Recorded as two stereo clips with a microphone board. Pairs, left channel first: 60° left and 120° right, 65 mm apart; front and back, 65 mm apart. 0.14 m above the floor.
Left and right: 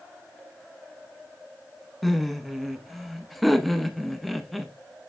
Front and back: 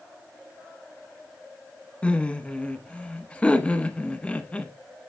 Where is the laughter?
30° right, 1.1 m.